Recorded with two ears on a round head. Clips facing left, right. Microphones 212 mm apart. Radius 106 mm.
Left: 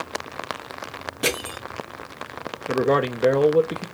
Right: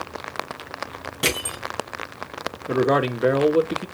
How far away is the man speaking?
About 0.6 m.